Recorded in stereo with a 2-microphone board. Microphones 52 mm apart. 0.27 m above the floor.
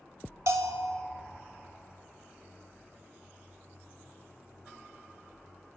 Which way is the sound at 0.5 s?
75° right (ahead or behind).